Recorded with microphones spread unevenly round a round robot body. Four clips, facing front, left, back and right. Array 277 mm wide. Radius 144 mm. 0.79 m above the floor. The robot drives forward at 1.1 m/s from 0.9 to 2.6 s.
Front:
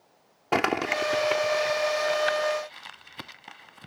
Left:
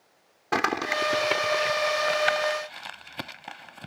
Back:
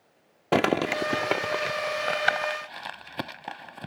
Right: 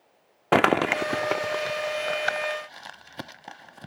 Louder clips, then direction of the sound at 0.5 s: Right 6 dB, back 2 dB; 135° right.